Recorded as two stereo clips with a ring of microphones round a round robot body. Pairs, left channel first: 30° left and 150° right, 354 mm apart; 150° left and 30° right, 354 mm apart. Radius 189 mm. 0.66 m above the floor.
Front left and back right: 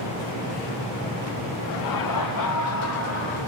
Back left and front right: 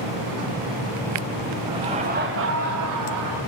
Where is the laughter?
50° left, 2 m; by 3.4 s 25° right, 2 m.